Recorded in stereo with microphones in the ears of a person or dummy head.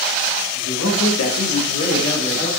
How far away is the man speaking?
About 1.0 m.